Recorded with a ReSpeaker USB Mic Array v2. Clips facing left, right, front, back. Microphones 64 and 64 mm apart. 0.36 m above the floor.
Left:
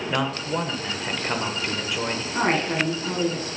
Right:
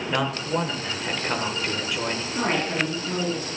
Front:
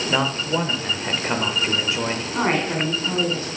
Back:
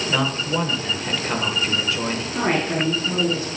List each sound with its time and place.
0.1 s a man speaking: 5° left, 0.8 m
2.3 s a woman speaking: 50° left, 3.5 m